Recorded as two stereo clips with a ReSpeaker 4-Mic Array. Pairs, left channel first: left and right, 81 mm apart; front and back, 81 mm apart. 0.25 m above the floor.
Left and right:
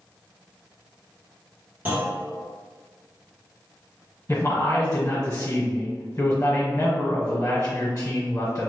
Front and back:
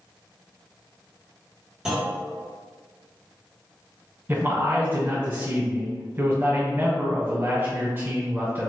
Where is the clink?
I don't hear a clink.